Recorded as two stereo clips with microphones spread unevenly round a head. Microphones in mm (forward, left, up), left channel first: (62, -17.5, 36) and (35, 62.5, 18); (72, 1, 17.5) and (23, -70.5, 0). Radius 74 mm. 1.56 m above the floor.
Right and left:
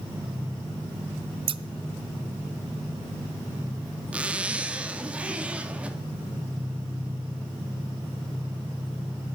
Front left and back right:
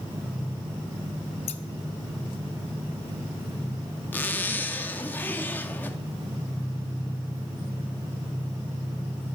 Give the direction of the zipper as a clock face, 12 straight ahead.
11 o'clock.